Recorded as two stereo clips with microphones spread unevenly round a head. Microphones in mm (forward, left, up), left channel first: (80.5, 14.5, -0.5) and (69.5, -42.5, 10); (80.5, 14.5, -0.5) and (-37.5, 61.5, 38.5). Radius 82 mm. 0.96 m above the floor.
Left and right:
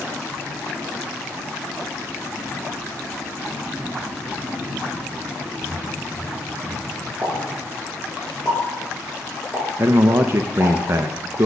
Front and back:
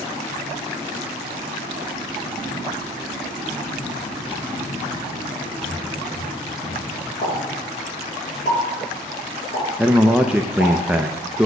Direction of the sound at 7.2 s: 35° right.